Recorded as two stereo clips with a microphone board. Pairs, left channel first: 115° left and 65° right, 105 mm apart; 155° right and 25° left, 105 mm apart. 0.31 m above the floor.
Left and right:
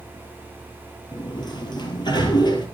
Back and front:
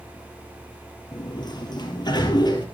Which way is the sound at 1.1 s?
155° left.